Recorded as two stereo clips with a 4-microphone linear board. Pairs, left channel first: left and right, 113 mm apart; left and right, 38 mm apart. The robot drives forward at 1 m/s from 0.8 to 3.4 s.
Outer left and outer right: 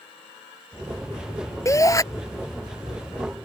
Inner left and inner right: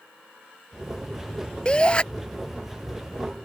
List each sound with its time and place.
1.6 s a shout: 25° left (ahead or behind); by 2.0 s 30° left (ahead or behind)